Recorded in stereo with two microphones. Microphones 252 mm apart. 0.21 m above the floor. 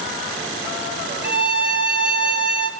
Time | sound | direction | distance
1.2 | a violin | 80° left | 1.0 m